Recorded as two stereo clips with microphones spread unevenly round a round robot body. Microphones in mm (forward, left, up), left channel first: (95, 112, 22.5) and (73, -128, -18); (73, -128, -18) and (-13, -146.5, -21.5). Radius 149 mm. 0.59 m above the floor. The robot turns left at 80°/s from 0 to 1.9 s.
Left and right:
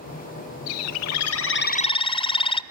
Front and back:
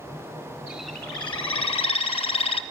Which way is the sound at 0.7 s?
115° left.